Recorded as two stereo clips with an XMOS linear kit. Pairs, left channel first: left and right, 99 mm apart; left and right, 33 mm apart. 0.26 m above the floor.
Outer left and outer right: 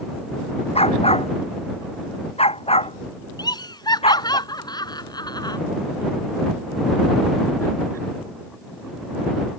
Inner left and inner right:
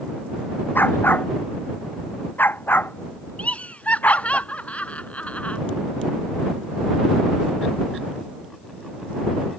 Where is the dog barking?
85° left; by 4.4 s 80° left.